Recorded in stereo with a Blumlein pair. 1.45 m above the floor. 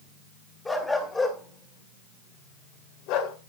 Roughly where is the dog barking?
Ahead.